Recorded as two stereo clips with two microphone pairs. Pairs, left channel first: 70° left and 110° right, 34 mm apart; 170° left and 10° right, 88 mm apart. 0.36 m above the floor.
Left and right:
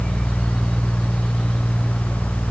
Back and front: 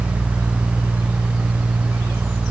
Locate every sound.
Only background noise.